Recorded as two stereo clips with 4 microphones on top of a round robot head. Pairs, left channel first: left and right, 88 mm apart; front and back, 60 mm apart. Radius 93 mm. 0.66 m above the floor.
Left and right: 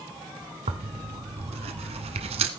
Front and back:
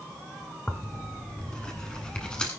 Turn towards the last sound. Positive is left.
turn(degrees=-80)